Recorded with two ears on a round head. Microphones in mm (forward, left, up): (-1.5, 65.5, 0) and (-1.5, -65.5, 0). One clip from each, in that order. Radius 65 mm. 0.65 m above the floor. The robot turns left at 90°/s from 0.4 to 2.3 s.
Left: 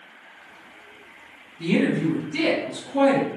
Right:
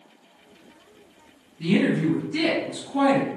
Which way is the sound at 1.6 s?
80° left.